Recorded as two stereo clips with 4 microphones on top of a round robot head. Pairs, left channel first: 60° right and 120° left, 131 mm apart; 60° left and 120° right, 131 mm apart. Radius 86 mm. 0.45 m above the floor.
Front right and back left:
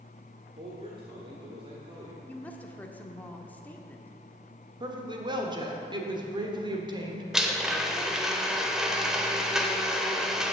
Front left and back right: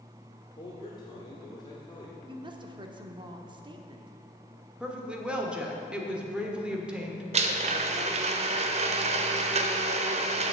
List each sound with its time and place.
0.6 s a man speaking: 95° left, 1.5 m
2.3 s a woman speaking: 130° right, 1.0 m
4.8 s a woman speaking: 160° left, 1.5 m
7.3 s a blender: 150° right, 0.9 m